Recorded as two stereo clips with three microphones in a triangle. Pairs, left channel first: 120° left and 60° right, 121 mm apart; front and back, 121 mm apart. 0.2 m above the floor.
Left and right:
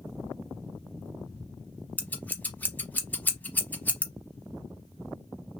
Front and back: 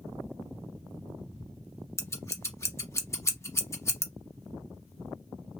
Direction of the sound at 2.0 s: 50° left.